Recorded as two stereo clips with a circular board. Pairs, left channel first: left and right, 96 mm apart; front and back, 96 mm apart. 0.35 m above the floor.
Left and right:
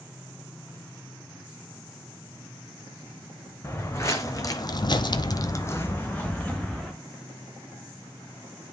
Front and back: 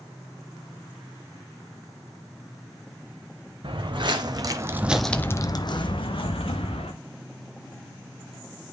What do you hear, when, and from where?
3.6 s footsteps: 155° left, 1.2 m; by 6.9 s 10° left, 1.5 m